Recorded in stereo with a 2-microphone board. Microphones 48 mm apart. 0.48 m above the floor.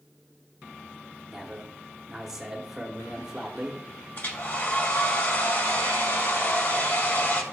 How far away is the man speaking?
About 0.8 m.